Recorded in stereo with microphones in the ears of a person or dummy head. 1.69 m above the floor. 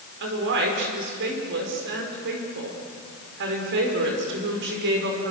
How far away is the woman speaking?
About 5 m.